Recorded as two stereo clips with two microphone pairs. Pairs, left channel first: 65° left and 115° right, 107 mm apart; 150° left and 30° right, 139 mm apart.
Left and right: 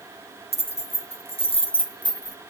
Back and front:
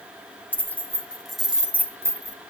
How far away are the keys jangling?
About 1.5 m.